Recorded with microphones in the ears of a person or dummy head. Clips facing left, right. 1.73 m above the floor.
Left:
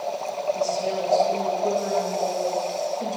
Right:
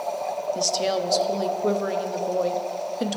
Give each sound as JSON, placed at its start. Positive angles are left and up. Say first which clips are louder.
{"t": 0.6, "sound": "a woman speaking", "louder": "even", "side_deg": -80, "distance_m": 0.6}